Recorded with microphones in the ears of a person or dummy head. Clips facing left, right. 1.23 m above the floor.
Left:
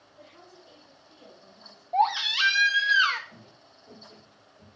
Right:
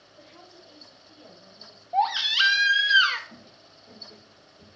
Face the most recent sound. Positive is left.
turn(degrees=-35)  # may be behind; listen again after turning